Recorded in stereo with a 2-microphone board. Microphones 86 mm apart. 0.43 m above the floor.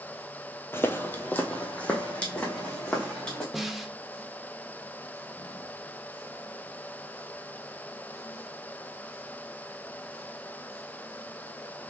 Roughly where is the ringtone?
I don't hear a ringtone.